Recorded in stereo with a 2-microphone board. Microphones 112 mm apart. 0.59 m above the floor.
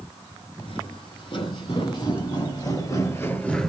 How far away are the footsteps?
About 1.9 m.